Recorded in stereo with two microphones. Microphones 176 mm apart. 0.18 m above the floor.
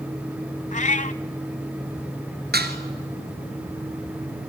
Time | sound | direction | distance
0.7 | a cat meowing | 45° left (ahead or behind) | 0.7 m
2.5 | dishes clattering | 65° right (ahead or behind) | 2 m